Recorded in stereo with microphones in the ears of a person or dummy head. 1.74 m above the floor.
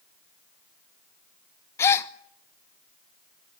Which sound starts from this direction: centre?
A gasp, at 1.8 s.